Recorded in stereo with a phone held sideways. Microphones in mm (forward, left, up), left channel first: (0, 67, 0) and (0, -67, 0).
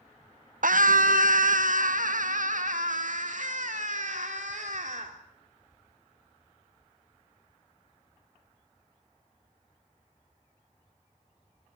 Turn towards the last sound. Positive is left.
turn(degrees=-70)  # may be behind; listen again after turning